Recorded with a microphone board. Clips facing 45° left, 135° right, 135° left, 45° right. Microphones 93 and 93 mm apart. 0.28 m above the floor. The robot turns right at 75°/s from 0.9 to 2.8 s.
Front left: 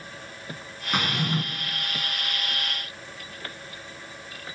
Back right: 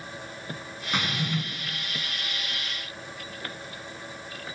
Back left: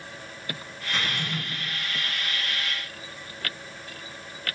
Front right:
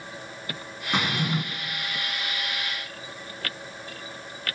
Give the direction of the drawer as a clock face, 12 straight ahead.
1 o'clock.